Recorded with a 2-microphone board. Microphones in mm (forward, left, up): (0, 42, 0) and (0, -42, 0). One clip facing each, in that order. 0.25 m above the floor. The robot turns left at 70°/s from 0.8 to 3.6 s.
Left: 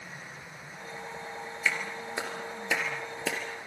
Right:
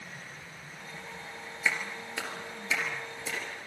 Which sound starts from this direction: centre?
A clap, at 1.6 s.